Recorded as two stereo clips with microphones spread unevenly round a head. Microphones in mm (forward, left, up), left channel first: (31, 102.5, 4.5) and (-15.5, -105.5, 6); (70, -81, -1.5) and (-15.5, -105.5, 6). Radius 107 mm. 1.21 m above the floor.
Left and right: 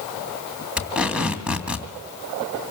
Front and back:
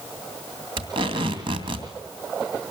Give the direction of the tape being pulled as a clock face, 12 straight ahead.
6 o'clock.